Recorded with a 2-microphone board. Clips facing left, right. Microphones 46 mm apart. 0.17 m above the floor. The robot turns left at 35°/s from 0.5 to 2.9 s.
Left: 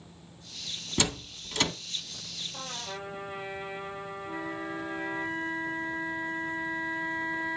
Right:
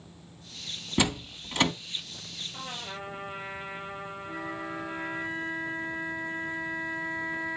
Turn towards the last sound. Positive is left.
turn(degrees=-70)  # may be behind; listen again after turning